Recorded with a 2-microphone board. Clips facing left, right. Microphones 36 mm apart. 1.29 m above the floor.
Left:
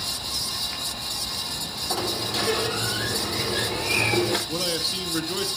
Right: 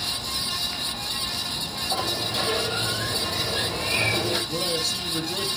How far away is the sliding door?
About 3.5 m.